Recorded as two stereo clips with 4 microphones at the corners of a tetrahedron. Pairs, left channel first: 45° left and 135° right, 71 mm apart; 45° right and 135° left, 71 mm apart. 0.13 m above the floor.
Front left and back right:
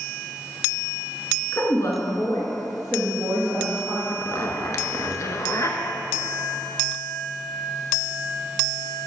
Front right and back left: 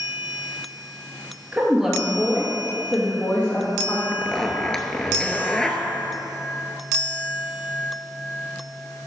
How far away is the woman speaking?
About 1.7 m.